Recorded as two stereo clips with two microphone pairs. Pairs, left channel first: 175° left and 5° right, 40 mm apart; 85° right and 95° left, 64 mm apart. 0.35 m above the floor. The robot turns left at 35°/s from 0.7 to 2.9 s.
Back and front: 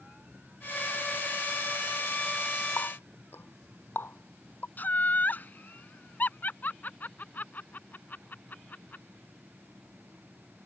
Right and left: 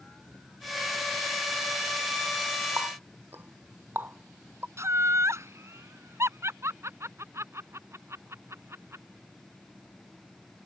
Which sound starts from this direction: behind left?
Laughter, at 4.8 s.